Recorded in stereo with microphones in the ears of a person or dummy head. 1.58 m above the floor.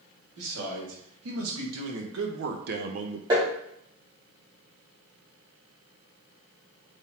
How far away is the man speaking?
About 1.9 m.